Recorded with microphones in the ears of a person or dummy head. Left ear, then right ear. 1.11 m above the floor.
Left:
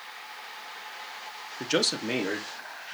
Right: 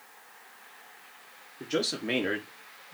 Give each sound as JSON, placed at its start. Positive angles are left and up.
{"t": 1.6, "sound": "a man speaking", "side_deg": 40, "distance_m": 0.7}